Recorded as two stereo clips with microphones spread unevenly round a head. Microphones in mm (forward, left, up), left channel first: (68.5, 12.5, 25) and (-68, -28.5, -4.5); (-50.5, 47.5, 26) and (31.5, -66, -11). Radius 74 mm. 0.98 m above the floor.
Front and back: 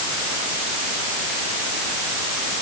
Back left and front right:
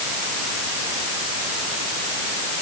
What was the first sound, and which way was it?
Only background noise.